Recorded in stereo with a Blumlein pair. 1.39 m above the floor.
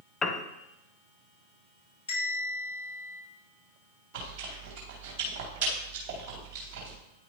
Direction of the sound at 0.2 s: 20° left.